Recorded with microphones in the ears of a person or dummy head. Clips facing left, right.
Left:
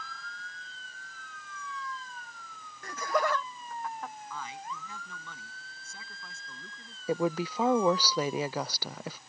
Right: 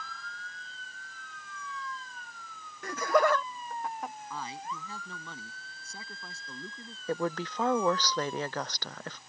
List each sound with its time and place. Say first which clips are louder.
2.8 s laughter: right 5 dB; 70° right (ahead or behind); by 4.1 s 15° right (ahead or behind)
4.3 s a man speaking: right 2 dB; 35° right (ahead or behind)
7.1 s a woman speaking: left 3 dB; 10° left (ahead or behind)